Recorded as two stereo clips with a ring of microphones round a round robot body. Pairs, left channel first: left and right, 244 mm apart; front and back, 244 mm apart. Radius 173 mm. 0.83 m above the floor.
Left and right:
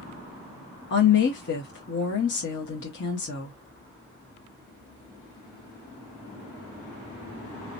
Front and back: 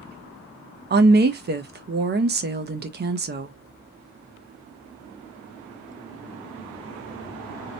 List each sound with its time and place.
0.9 s a woman speaking: 135° left, 0.6 m